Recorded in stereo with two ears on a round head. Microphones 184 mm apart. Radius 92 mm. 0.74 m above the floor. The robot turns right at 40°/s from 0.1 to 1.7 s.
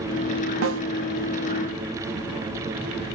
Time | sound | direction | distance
0.6 | a snare drum | 65° right (ahead or behind) | 0.8 m